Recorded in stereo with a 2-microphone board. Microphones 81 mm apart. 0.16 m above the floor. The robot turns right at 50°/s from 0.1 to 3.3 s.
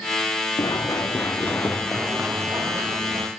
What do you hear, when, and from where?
0.6 s running footsteps: 55° left (ahead or behind), 1.8 m; by 3.3 s 60° right (ahead or behind), 3.5 m